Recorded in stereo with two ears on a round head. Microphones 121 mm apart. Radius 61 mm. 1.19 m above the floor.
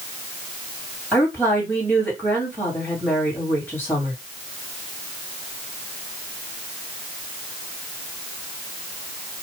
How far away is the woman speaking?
About 1.9 m.